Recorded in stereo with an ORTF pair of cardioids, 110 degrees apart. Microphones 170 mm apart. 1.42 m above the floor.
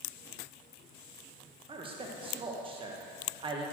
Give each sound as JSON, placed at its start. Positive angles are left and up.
{"t": 1.7, "sound": "a man speaking", "azimuth_deg": -30, "distance_m": 1.4}